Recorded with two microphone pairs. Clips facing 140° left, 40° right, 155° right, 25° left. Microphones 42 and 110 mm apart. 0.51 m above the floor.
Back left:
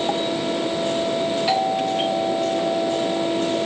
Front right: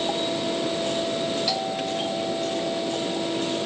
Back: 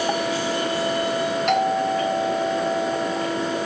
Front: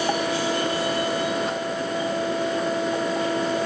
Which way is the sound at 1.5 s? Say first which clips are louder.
Back left 6 dB, back 7 dB; 165° right.